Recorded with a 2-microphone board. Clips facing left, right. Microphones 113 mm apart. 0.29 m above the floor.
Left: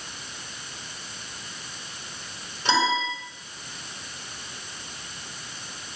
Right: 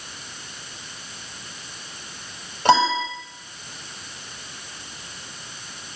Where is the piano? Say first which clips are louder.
Right 6 dB; 55° right (ahead or behind), 6.5 m.